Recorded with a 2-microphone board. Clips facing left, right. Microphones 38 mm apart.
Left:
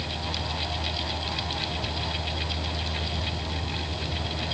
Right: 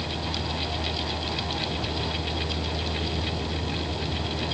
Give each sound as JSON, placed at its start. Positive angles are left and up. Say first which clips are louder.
{"t": 0.0, "sound": "a vehicle", "louder": "right 1 dB", "side_deg": -55}